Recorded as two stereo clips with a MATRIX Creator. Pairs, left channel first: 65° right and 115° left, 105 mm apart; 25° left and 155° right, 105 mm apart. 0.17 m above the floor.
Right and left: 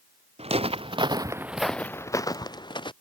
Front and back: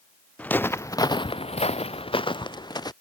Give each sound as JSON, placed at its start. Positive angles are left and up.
{"t": 0.4, "sound": "footsteps", "azimuth_deg": 100}